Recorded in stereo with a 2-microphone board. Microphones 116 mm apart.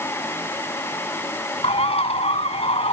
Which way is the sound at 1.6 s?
60° left (ahead or behind).